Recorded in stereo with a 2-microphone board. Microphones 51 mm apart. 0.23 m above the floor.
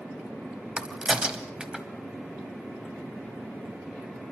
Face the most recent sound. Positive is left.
turn(degrees=-20)  # may be behind; listen again after turning